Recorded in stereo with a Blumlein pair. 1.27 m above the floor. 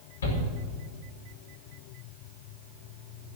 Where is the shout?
70° left, 5 m.